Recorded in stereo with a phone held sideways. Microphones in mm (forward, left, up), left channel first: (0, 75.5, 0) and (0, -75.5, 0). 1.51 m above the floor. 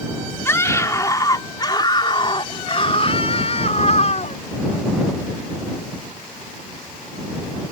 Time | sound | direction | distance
0.5 | a scream | 15° left (ahead or behind) | ?